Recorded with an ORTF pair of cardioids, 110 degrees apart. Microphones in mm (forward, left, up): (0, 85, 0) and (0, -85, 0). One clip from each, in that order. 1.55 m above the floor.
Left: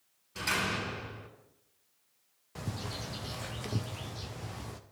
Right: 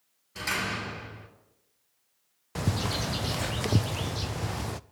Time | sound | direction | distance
0.3 | a door slam | 10° right | 4.5 m
2.5 | a bird | 50° right | 0.5 m